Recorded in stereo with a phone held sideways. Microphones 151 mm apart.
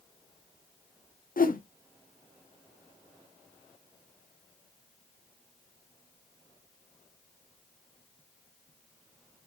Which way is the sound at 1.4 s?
70° left (ahead or behind).